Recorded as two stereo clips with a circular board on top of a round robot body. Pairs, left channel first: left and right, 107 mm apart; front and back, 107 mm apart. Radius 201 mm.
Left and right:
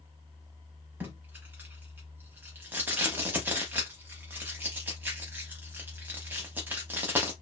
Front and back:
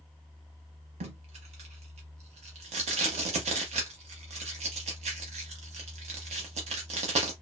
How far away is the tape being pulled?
About 0.6 m.